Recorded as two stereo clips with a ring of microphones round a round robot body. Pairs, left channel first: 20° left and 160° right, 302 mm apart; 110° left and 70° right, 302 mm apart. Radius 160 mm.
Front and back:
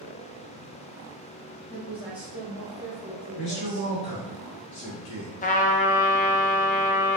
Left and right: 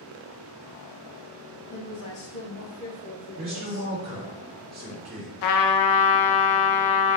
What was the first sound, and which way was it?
A woman speaking, 120° left.